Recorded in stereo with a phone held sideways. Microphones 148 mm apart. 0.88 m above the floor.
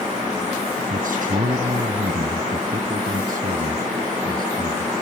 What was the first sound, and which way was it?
A man speaking, 70° right (ahead or behind).